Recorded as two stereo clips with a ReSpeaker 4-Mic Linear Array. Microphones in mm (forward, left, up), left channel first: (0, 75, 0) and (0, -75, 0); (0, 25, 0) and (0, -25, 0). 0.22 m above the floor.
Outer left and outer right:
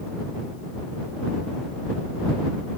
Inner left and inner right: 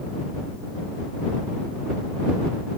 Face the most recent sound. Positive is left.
No sound to turn to.